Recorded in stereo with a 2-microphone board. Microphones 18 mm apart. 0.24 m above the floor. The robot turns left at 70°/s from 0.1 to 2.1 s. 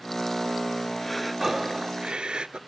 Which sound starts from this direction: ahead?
Breathing, at 1.0 s.